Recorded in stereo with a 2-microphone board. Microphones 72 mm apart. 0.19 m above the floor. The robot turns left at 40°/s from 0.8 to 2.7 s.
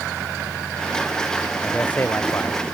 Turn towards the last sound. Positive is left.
turn(degrees=125)